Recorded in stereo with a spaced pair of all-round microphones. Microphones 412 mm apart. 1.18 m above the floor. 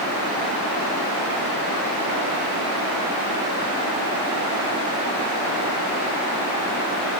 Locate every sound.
Only background noise.